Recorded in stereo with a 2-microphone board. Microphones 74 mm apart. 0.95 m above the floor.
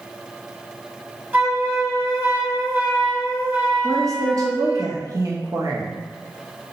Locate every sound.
1.3 s a flute: 25° right (ahead or behind), 0.6 m
3.8 s a woman speaking: 50° right (ahead or behind), 0.6 m